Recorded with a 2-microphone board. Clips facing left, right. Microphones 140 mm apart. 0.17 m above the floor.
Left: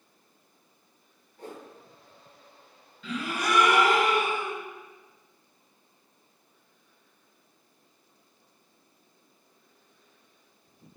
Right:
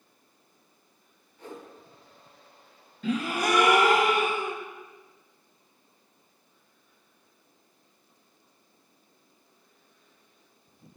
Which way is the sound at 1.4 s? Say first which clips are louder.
Even; 50° left (ahead or behind).